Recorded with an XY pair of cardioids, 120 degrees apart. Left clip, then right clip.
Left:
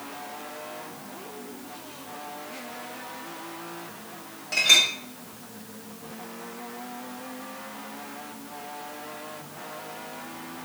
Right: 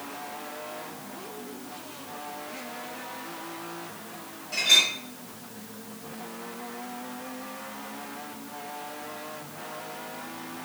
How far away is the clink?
About 1.6 m.